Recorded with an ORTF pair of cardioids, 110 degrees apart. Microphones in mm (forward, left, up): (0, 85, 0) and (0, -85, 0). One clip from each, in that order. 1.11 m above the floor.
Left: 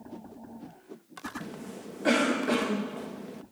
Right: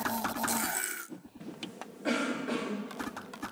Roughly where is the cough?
Ahead left.